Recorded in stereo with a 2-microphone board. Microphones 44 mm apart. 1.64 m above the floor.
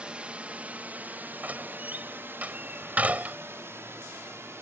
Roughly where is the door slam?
Right.